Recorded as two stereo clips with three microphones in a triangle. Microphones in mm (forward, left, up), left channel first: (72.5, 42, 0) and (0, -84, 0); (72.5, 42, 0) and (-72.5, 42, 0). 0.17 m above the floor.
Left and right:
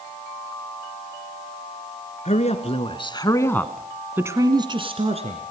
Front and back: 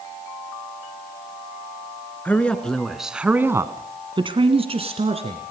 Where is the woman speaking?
75° left, 2.5 m; by 5.5 s 145° right, 2.5 m.